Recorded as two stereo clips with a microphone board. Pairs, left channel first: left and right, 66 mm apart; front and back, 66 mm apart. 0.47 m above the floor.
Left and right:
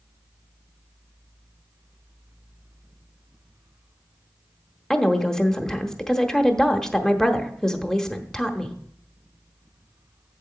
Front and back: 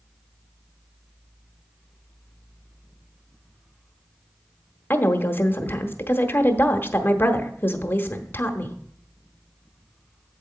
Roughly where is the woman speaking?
Ahead.